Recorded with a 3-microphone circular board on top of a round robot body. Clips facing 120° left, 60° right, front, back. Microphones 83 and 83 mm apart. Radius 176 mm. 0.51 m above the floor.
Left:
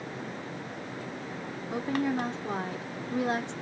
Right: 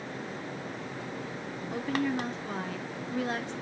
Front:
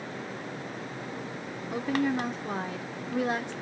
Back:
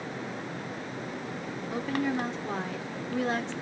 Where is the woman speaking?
70° left, 0.9 m.